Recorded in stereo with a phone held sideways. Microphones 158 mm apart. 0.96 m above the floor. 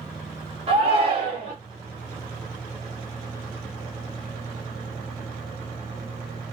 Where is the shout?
40° right (ahead or behind), 1.1 m.